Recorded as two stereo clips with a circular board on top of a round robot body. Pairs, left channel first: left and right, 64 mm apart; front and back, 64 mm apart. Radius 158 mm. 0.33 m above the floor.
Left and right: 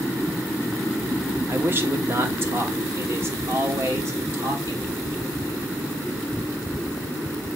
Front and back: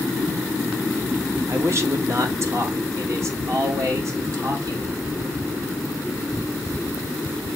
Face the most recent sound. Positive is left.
turn(degrees=-140)